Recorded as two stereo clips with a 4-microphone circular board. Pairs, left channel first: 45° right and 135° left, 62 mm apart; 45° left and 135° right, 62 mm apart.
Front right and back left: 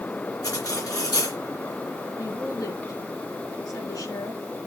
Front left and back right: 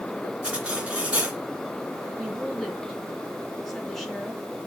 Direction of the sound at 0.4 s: 60° right.